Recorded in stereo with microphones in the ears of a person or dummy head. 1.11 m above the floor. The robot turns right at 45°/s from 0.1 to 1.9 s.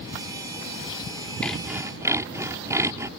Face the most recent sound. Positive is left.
turn(degrees=-15)  # may be behind; listen again after turning